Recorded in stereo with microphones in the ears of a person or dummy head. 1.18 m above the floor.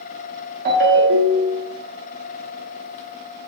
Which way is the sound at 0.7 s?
50° right (ahead or behind).